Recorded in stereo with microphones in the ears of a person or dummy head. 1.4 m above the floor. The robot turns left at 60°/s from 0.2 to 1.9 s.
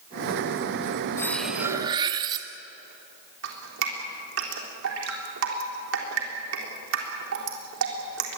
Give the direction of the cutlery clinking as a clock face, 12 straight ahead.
11 o'clock.